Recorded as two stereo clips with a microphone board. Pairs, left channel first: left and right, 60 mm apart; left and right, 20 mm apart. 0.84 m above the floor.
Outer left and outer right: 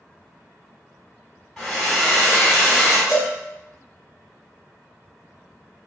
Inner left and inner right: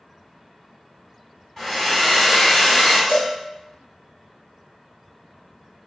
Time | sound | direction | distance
1.6 | a hair dryer | 10° left (ahead or behind) | 1.7 m
3.1 | a cowbell | 70° left (ahead or behind) | 1.3 m